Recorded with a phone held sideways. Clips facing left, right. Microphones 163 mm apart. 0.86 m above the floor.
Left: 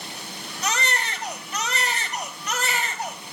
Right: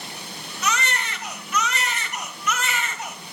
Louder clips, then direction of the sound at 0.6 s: Right 1 dB; 35° left (ahead or behind).